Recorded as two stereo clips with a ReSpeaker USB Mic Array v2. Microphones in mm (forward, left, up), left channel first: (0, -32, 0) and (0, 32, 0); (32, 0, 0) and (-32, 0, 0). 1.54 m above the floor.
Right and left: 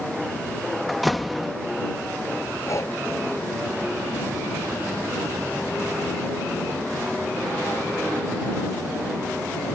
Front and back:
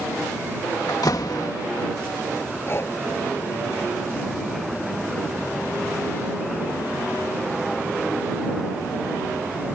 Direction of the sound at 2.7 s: 50° right.